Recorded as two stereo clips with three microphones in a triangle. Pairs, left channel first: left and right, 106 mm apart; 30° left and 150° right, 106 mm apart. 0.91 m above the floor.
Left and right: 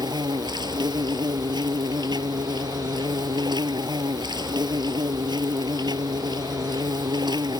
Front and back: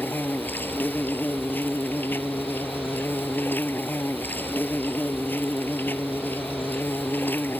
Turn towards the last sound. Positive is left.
turn(degrees=-40)